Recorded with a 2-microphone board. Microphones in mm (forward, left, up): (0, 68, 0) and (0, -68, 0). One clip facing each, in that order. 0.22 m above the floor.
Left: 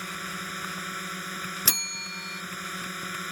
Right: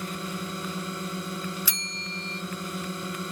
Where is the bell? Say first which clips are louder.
Right 1 dB; 75° left (ahead or behind).